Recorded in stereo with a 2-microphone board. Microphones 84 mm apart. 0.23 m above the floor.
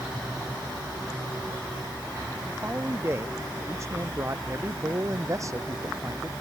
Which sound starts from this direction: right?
A man speaking, at 2.5 s.